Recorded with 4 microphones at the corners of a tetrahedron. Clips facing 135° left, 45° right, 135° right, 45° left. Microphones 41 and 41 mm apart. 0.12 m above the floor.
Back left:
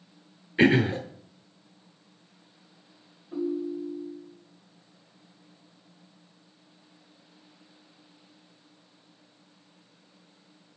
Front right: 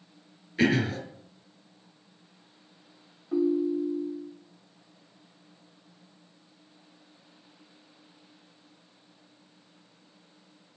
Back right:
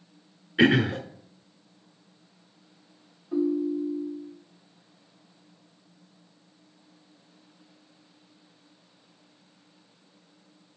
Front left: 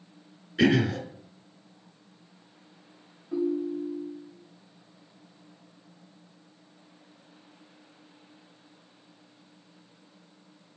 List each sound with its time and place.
0.6 s throat clearing: 175° right, 0.9 m
3.3 s a ringtone: 45° right, 3.5 m